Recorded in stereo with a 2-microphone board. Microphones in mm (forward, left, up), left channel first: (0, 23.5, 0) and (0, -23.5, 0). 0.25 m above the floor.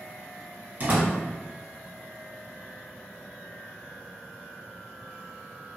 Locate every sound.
0.8 s a door slam: 40° right (ahead or behind), 1.5 m